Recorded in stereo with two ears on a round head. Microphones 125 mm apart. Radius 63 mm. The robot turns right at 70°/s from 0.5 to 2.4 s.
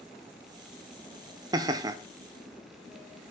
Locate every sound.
1.5 s laughter: 25° right (ahead or behind), 0.6 m